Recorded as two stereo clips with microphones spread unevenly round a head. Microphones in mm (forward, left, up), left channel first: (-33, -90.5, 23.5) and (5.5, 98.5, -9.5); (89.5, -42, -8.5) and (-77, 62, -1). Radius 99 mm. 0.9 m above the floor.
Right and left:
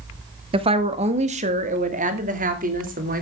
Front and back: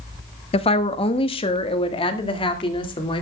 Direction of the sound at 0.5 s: 25° left.